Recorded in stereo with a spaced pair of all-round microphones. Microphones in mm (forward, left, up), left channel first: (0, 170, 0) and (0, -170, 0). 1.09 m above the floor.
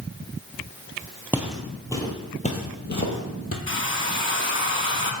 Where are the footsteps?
5° right (ahead or behind), 1.1 m; by 3.6 s 45° left (ahead or behind), 1.4 m.